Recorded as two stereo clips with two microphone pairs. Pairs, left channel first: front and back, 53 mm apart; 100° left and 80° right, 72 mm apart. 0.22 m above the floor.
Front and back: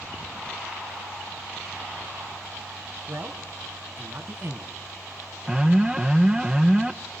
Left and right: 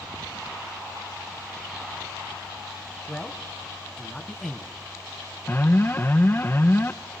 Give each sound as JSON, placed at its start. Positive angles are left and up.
{"t": 3.1, "sound": "a man speaking", "azimuth_deg": -175, "distance_m": 1.8}
{"t": 5.5, "sound": "an alarm", "azimuth_deg": 115, "distance_m": 0.7}